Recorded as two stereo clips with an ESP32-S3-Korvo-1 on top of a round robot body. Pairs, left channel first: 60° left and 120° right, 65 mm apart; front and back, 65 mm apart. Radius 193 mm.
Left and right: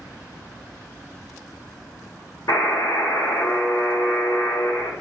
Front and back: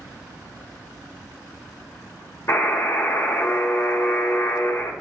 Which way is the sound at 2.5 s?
40° left.